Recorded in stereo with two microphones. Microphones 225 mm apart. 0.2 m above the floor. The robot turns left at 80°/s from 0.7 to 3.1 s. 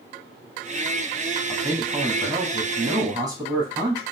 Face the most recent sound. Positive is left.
turn(degrees=-140)